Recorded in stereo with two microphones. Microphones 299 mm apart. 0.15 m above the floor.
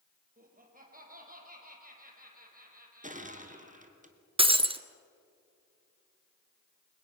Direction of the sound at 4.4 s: 20° right (ahead or behind).